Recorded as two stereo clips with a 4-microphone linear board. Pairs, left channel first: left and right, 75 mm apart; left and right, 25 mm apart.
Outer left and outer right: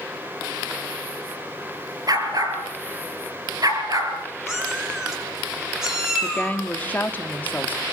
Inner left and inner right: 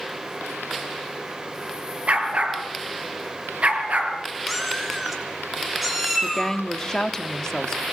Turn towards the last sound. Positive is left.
turn(degrees=25)  # may be behind; listen again after turning